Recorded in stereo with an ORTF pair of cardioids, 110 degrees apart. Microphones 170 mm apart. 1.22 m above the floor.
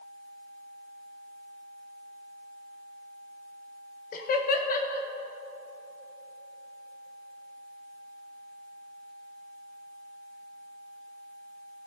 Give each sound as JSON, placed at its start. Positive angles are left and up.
{"t": 4.1, "sound": "laughter", "azimuth_deg": 60, "distance_m": 1.5}